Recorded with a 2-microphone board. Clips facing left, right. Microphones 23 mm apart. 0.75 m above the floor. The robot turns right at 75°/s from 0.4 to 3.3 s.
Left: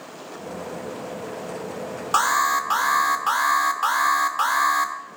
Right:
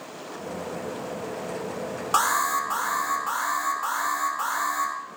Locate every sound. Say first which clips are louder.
2.1 s an alarm: left 3 dB; 10° left, 1.3 m; by 4.9 s 95° left, 1.3 m